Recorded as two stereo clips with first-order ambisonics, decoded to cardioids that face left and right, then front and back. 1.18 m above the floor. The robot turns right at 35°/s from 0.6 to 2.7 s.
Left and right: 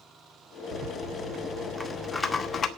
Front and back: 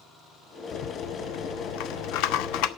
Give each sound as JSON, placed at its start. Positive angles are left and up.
{"t": 0.7, "sound": "a rattle", "azimuth_deg": -40, "distance_m": 1.0}